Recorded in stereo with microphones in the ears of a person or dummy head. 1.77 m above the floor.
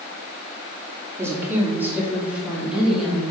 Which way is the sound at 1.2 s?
10° right (ahead or behind).